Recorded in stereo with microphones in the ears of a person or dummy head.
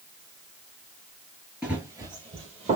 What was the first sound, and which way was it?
Running footsteps, 5° right (ahead or behind).